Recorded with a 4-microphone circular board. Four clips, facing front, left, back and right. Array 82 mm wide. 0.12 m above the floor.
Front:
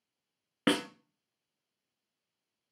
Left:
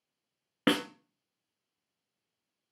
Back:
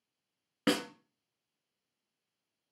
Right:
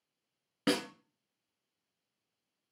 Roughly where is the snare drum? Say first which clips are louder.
Left 3 dB, front 2 dB; ahead left.